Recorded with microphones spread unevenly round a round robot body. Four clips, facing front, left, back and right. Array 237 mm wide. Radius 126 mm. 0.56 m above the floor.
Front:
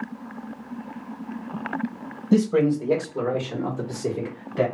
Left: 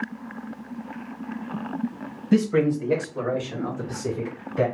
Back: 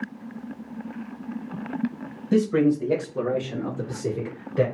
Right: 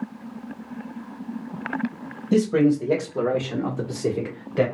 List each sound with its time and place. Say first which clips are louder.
2.3 s a man speaking: right 2 dB, front 1 dB; 15° right, 1.4 m; by 4.7 s 90° right, 2.5 m